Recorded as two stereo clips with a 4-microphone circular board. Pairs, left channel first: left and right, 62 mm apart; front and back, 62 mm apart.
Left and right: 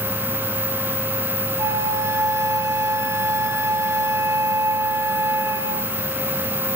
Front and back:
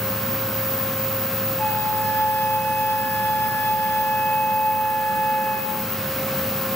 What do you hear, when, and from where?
1.6 s a flute: 55° right, 2.5 m